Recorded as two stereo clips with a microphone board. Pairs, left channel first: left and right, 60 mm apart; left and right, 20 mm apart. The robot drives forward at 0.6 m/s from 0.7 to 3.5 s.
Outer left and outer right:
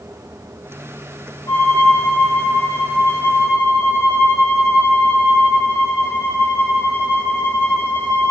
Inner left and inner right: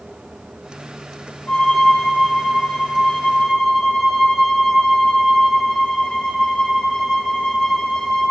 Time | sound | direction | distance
1.5 | a violin | 65° left (ahead or behind) | 10 m